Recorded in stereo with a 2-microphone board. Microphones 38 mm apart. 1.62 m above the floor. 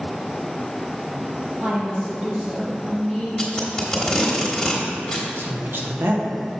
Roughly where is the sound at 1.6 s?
Right.